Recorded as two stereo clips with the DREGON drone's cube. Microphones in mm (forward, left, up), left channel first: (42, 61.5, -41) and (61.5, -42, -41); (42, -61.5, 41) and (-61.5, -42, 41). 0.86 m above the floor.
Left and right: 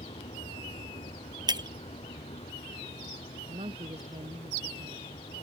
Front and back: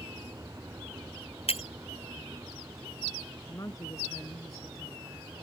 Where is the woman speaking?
70° right.